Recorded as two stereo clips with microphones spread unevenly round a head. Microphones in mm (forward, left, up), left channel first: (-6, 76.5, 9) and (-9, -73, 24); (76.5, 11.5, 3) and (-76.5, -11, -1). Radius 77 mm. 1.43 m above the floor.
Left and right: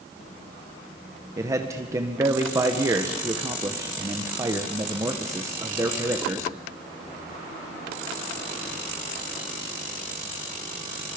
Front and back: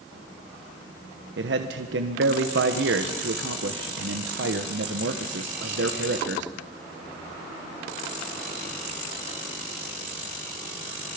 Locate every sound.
1.4 s a man speaking: 165° right, 1.4 m